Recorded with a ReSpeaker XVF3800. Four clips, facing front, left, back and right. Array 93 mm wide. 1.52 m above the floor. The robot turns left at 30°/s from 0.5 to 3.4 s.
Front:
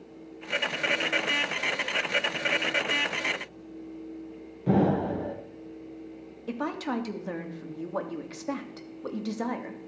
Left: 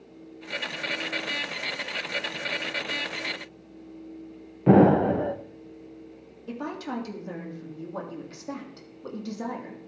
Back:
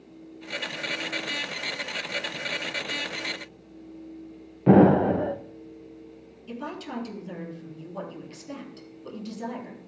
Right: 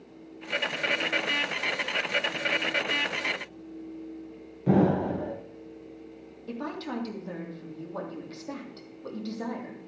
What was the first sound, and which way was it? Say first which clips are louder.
An explosion: left 6 dB, back 8 dB; 140° left.